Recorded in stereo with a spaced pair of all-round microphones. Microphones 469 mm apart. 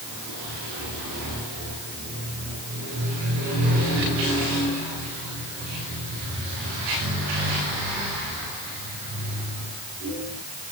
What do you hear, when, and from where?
Only background noise.